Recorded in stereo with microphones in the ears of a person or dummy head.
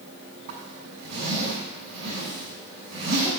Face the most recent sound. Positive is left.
turn(degrees=-55)  # may be behind; listen again after turning